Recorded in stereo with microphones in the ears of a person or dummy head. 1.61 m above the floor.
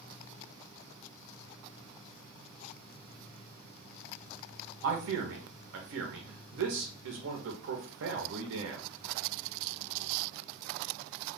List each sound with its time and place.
4.8 s a man speaking: 70° right (ahead or behind), 1.4 m